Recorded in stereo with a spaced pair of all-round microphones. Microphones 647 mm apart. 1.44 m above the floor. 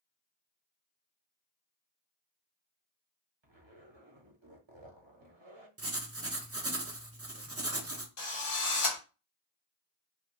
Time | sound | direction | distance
3.4 | a zipper | 45° right (ahead or behind) | 0.9 m
5.8 | writing | 25° right (ahead or behind) | 0.6 m
8.2 | a drill | 65° left (ahead or behind) | 1.2 m